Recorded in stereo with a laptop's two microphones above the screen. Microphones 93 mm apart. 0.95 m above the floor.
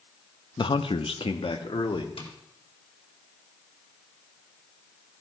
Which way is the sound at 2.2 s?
85° left.